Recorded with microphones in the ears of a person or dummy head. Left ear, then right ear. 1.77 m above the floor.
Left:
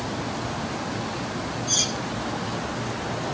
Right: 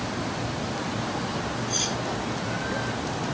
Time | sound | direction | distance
1.7 | cutlery clinking | 85° left | 8.5 m